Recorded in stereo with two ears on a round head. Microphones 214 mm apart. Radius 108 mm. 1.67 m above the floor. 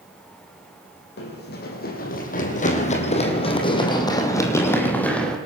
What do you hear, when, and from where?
1.2 s running footsteps: 50° left (ahead or behind), 5 m; by 5.4 s 5° left (ahead or behind), 4.5 m